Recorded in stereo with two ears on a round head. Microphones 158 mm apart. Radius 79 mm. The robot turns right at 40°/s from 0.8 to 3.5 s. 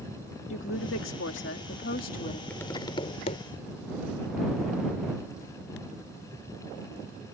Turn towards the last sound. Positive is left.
turn(degrees=50)